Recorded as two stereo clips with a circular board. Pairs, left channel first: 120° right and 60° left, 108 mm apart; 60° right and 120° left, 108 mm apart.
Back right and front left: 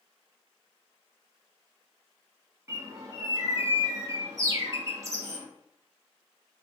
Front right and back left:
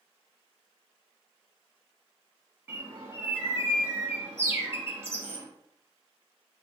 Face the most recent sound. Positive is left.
turn(degrees=80)